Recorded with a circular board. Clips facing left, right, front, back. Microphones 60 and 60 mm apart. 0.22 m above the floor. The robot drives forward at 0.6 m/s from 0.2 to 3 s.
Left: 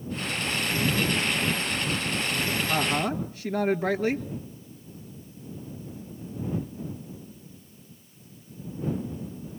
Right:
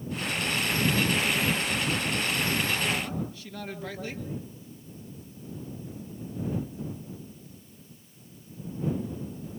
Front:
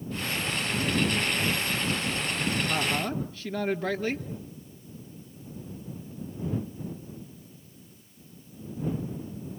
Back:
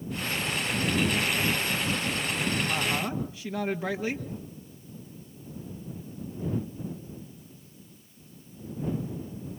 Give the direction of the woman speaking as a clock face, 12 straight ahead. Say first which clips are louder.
Left 4 dB, front 1 dB; 9 o'clock.